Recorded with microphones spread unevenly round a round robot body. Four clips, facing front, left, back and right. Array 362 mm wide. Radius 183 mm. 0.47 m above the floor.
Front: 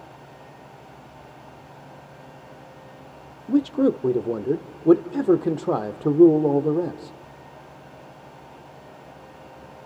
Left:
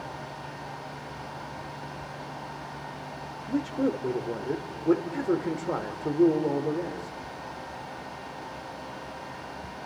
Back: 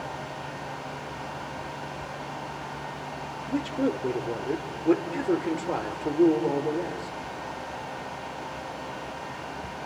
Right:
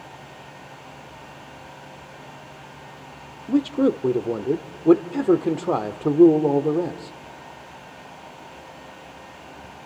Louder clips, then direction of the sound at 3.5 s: Right 8 dB, front 8 dB; 55° right.